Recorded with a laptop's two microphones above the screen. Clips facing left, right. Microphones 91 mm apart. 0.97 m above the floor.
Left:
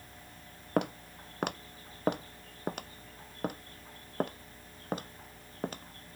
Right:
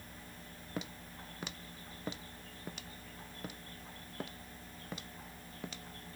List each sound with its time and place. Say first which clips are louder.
0.8 s footsteps: left 12 dB; 65° left (ahead or behind); by 6.2 s 50° left (ahead or behind)